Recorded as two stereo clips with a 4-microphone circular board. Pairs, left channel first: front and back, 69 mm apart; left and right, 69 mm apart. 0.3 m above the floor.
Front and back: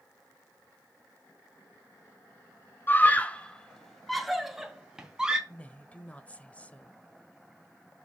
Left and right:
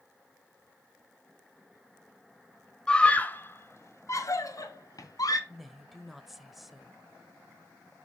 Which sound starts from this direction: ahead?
A woman speaking, at 5.5 s.